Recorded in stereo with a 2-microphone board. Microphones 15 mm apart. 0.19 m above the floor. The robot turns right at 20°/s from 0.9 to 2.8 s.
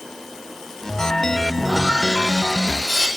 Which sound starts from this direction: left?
Sawing, at 1.6 s.